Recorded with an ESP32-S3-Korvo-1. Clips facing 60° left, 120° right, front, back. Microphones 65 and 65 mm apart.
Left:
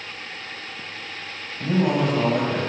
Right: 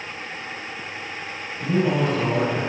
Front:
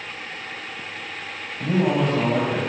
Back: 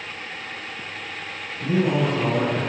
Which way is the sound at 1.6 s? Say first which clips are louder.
Even, front 1 dB; 10° left.